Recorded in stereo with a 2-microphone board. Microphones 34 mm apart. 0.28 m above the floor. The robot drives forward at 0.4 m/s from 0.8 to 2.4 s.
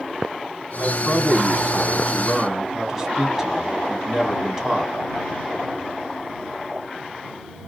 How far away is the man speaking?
About 2 m.